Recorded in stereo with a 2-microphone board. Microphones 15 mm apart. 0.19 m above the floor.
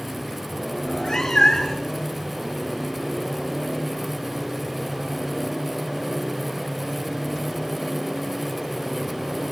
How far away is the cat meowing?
About 5.5 m.